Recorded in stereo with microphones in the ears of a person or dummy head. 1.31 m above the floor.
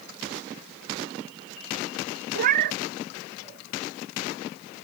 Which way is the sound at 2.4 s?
45° right (ahead or behind).